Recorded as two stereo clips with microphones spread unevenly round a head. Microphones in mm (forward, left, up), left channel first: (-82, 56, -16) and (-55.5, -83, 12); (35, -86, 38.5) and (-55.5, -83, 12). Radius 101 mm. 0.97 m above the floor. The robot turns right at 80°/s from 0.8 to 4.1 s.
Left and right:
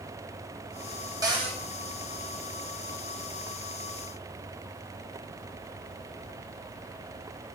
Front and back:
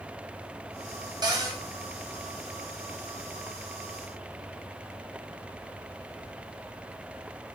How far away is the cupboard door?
About 2 m.